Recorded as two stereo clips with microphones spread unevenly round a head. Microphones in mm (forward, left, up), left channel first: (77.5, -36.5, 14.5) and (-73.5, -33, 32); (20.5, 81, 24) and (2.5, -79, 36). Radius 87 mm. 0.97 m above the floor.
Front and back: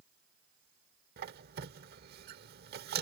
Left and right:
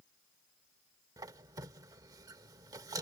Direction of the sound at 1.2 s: 165° right.